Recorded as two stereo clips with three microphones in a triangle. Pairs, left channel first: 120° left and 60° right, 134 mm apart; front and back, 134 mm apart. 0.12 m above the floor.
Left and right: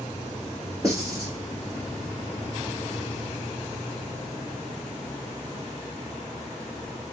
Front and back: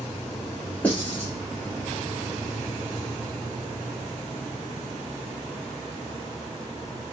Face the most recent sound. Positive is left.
turn(degrees=-65)